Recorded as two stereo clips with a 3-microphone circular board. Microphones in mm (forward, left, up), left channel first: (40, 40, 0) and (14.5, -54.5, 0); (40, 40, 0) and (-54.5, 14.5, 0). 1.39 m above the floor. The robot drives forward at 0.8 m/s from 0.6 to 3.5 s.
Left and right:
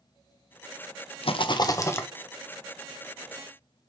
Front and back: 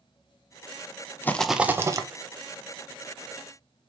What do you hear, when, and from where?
1.2 s a rattle: 85° left, 0.5 m; by 2.1 s 140° left, 0.8 m